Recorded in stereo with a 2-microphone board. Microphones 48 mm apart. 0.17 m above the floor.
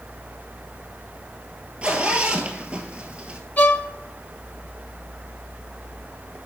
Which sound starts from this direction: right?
A zipper, at 1.8 s.